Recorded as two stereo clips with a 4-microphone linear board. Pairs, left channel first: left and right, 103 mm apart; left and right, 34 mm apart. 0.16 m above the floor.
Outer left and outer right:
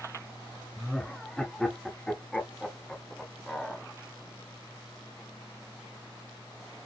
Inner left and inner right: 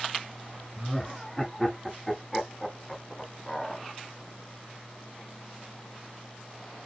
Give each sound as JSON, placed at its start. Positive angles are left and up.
{"t": 0.8, "sound": "laughter", "side_deg": 5, "distance_m": 1.1}